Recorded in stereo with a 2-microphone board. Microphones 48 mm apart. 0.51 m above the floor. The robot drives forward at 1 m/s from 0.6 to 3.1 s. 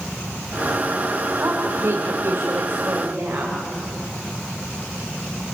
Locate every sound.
1.4 s a woman speaking: 60° right (ahead or behind), 2 m; by 3.6 s 45° right (ahead or behind), 2.5 m